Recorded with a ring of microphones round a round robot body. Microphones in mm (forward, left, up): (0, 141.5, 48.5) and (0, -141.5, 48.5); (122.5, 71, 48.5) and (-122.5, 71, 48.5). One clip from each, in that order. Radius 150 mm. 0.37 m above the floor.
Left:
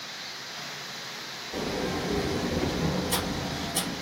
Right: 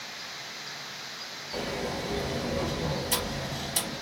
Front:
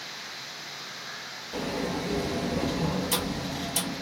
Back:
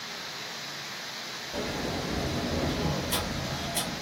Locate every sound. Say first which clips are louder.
1.5 s a sliding door: left 2 dB, front 2 dB; 25° right, 0.9 m